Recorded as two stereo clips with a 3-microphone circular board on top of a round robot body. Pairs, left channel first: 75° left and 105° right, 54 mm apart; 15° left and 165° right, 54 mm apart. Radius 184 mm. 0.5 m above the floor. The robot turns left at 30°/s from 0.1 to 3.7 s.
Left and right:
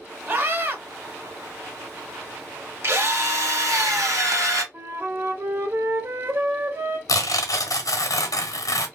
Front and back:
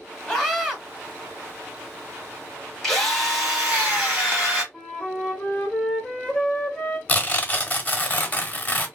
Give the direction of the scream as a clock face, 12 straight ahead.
2 o'clock.